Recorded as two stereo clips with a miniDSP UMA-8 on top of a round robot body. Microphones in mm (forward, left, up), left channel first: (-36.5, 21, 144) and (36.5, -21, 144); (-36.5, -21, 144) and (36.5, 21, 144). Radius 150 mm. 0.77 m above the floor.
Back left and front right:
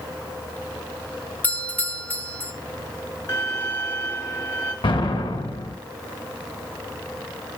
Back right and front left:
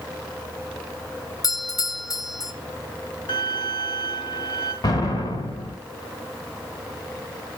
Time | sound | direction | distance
1.4 | a doorbell | 145° right | 1.7 m
3.3 | a violin | 150° right | 2.5 m
4.8 | an explosion | 175° left | 3 m